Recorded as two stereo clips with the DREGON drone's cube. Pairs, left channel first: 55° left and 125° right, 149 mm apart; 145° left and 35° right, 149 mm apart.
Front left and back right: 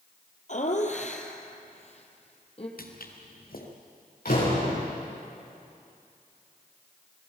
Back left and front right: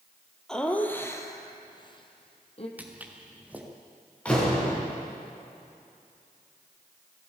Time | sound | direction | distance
0.5 | laughter | 60° left | 2 m
2.8 | footsteps | 45° left | 3.5 m
4.2 | a door slam | 65° left | 8.5 m